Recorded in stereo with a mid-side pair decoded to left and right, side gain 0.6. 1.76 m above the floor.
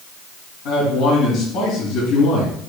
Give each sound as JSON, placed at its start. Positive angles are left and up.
{"t": 0.7, "sound": "a man speaking", "azimuth_deg": 70, "distance_m": 3.5}